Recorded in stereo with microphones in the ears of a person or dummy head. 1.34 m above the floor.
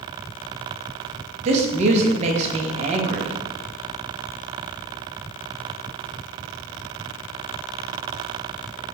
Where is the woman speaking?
35° right (ahead or behind), 0.6 m.